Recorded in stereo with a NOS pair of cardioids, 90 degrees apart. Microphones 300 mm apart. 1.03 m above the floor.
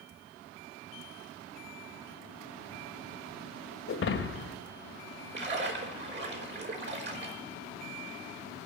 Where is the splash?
35° right, 5 m.